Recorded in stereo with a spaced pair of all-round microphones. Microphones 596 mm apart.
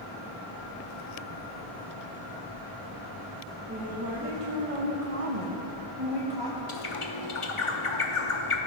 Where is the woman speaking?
20° right (ahead or behind), 1.5 m; by 6.6 s 35° right (ahead or behind), 1.8 m.